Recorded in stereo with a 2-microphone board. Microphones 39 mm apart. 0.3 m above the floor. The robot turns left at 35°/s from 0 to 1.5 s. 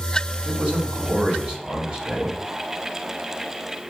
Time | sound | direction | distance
0.5 | a man speaking | 95° right | 1.7 m